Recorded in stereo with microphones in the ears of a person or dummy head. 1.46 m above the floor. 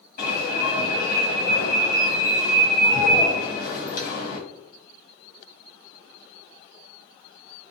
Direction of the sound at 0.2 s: 65° left (ahead or behind).